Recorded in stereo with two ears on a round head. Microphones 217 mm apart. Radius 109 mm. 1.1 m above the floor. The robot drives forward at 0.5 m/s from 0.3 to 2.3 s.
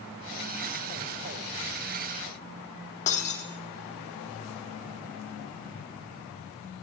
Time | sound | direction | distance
3.1 | breaking glass | 30° left (ahead or behind) | 2.5 m